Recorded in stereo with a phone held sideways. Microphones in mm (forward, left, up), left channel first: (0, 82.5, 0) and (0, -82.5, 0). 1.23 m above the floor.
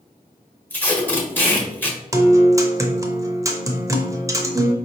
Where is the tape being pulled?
10° left (ahead or behind), 1.0 m.